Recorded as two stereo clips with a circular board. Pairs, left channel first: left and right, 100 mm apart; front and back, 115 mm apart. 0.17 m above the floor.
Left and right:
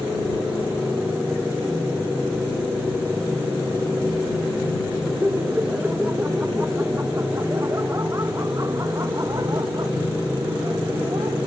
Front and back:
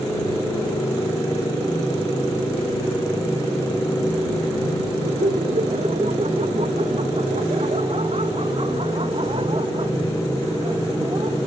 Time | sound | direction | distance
5.0 | laughter | 170° right | ?